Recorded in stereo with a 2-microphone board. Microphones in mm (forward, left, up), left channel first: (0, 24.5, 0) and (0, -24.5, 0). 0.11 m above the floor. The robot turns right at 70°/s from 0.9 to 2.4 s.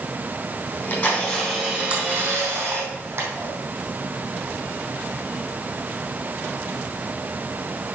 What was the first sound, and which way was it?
A camera shutter, 125° left.